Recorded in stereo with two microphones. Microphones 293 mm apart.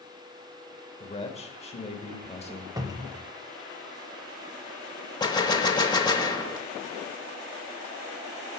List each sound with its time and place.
1.0 s a man speaking: 20° left (ahead or behind), 0.9 m
2.8 s a cupboard door: 15° right (ahead or behind), 0.6 m
5.2 s a gunshot: 15° left (ahead or behind), 0.7 m